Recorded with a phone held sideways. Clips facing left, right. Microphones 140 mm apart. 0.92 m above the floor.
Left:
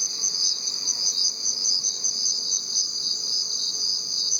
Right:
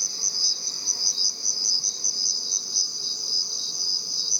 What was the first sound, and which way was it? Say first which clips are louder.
An insect: even; 5° right (ahead or behind).